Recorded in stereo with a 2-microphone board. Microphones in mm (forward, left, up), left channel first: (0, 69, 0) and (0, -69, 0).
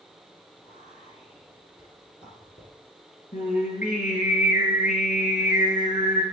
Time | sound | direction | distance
0.6 | whispering | 55° left (ahead or behind) | 4.5 m
3.3 | singing | 75° left (ahead or behind) | 5.5 m